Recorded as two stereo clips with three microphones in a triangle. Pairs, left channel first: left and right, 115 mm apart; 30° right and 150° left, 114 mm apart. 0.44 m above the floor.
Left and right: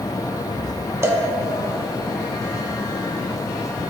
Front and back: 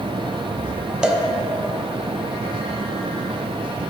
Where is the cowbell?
135° right, 0.5 m.